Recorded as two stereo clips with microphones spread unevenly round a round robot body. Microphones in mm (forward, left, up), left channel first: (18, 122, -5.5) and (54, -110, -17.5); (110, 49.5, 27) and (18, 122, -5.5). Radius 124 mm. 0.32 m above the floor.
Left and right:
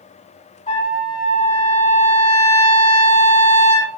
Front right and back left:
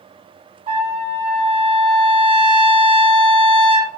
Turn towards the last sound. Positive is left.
turn(degrees=165)